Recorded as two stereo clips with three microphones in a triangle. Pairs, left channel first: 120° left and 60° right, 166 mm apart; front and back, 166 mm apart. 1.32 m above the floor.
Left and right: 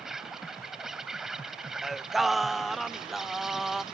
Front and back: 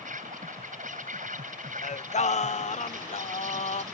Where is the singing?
30° left.